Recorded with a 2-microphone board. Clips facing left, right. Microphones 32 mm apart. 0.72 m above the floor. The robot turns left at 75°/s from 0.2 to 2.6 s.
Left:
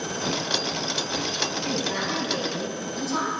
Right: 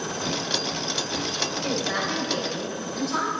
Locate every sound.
1.6 s a woman speaking: 90° right, 3 m; by 3.3 s 160° right, 3 m